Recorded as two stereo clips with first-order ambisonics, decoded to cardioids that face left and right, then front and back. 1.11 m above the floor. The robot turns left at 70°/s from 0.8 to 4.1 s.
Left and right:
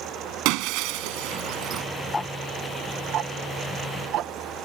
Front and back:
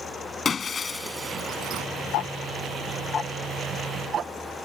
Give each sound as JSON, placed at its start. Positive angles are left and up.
{"t": 0.5, "sound": "breaking glass", "azimuth_deg": -70}
{"t": 2.1, "sound": "ticking", "azimuth_deg": 15}